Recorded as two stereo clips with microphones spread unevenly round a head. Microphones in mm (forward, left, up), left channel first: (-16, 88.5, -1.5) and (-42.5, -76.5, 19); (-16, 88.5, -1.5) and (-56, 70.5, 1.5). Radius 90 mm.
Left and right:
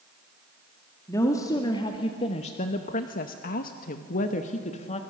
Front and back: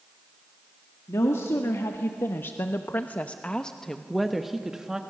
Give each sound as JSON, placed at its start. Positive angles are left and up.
{"t": 1.1, "sound": "a woman speaking", "azimuth_deg": 10, "distance_m": 1.8}